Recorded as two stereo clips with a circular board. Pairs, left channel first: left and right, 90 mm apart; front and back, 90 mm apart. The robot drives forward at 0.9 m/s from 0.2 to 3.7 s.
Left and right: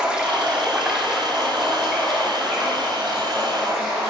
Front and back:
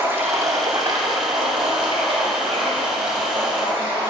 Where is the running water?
155° right, 0.9 m; by 4.1 s 175° right, 3.5 m.